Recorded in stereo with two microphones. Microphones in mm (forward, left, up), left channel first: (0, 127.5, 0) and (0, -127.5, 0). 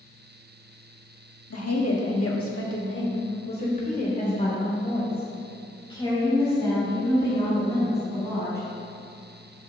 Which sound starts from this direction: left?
A woman speaking, at 1.5 s.